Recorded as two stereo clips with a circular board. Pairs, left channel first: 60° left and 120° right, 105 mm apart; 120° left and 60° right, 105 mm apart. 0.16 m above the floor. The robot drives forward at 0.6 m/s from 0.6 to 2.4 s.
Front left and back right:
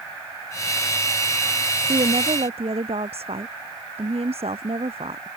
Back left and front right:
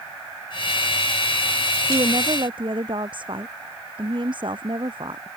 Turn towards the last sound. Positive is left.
turn(degrees=-100)